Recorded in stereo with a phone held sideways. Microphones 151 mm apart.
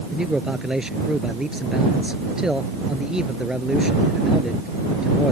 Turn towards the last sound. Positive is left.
turn(degrees=-5)  # may be behind; listen again after turning